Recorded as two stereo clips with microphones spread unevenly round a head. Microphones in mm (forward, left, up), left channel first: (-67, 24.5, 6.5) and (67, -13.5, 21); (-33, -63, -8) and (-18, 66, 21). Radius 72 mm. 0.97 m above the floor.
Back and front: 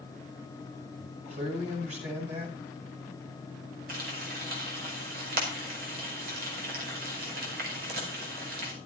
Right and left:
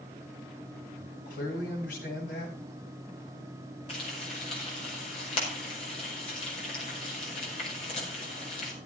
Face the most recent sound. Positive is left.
turn(degrees=-45)